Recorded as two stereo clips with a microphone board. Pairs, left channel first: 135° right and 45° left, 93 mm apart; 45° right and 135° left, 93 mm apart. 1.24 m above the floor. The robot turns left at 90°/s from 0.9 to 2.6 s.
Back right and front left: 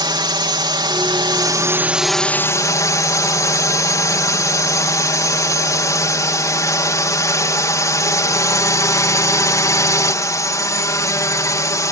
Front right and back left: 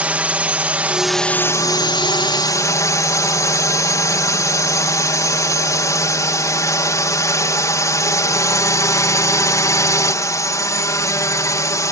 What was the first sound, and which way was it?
A drone, 65° left.